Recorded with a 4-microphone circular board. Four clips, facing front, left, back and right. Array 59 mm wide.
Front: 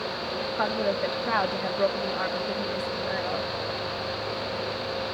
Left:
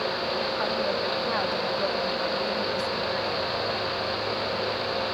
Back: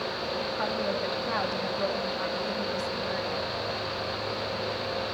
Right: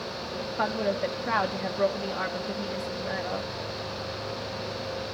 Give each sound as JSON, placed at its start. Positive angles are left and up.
{"t": 0.6, "sound": "a woman speaking", "azimuth_deg": -35, "distance_m": 1.2}